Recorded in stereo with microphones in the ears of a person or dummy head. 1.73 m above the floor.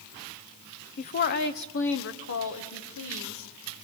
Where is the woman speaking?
40° left (ahead or behind), 0.9 m; by 3.8 s 75° left (ahead or behind), 3 m.